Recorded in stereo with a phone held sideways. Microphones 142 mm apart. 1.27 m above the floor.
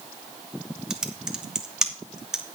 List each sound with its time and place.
0.9 s typing on a keyboard: 5° right (ahead or behind), 1.1 m